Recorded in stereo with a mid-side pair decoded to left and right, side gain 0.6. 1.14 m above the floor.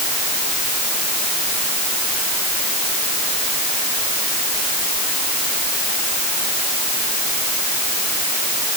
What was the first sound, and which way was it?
Only background noise.